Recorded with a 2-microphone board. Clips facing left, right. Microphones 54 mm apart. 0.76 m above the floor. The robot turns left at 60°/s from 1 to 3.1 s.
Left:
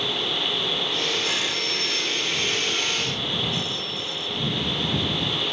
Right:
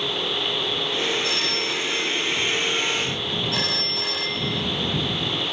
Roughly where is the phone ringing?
Ahead left.